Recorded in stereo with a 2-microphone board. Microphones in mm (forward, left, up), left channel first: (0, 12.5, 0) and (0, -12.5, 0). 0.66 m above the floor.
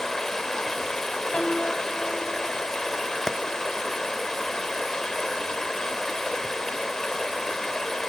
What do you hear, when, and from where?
0.0 s running water: 20° left (ahead or behind), 1.1 m
1.3 s a piano: 35° left (ahead or behind), 4 m
3.3 s a clap: 20° left (ahead or behind), 0.8 m